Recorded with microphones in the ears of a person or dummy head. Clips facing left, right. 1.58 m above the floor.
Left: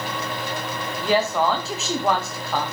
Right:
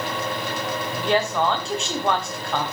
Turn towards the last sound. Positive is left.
turn(degrees=5)  # may be behind; listen again after turning